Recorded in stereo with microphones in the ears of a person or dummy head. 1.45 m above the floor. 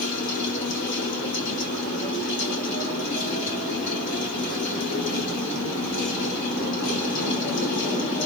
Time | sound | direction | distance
0.0 | a fan | 50° left (ahead or behind) | 1.1 m